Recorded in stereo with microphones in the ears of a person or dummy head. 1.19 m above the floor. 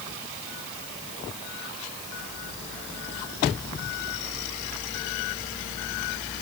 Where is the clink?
I don't hear a clink.